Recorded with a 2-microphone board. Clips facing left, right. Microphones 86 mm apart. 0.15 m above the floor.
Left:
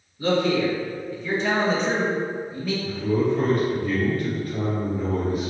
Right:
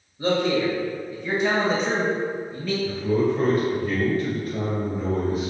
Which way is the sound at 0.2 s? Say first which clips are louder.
Left 1 dB; 30° right (ahead or behind).